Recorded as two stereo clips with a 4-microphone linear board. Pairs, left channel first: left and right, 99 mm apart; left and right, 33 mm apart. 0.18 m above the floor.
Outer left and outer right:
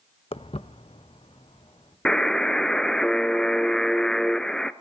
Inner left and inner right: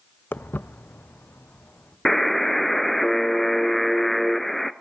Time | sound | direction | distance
0.3 | footsteps | 75° left (ahead or behind) | 0.5 m
2.0 | a buzzer | 5° left (ahead or behind) | 0.5 m